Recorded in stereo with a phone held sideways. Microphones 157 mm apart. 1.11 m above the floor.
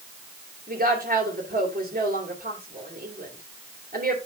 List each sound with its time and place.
0.7 s a woman speaking: 80° right, 3.5 m